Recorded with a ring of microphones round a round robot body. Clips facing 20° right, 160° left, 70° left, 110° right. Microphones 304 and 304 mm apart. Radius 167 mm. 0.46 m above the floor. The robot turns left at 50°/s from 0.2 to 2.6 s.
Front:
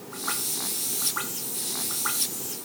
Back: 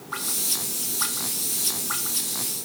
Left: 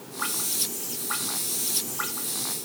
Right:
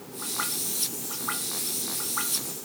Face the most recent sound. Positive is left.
No sound to turn to.